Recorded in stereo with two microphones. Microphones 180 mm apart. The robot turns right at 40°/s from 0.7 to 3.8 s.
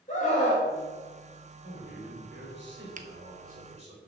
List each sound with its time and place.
0.1 s a scream: 40° left (ahead or behind), 2 m
1.6 s a man speaking: 125° right, 4 m; by 4.0 s 35° right, 4 m
3.0 s a finger snap: 45° right (ahead or behind), 0.8 m; by 3.1 s 50° right (ahead or behind), 0.8 m